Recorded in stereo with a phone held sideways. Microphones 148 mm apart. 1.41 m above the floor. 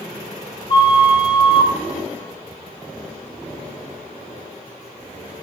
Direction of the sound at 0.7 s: 30° left (ahead or behind).